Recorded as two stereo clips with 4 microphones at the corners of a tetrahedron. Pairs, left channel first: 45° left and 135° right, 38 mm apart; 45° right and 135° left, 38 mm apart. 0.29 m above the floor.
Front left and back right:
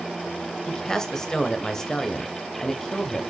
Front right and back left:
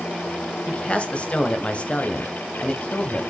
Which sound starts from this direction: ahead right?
A man speaking, at 0.7 s.